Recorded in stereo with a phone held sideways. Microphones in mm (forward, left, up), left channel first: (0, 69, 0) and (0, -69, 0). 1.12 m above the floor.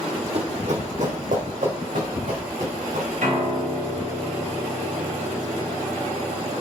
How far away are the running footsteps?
About 1.8 m.